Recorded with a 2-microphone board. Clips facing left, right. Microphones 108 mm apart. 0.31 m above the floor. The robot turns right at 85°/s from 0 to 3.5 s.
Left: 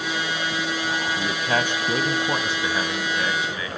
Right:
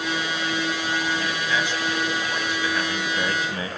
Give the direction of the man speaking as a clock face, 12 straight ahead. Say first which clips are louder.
Left 2 dB; 11 o'clock.